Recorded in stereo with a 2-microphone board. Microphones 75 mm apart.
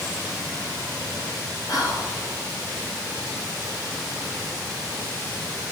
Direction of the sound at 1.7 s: 60° left (ahead or behind).